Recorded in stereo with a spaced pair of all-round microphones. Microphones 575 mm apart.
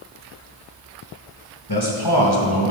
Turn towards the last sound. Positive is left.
turn(degrees=40)  # may be behind; listen again after turning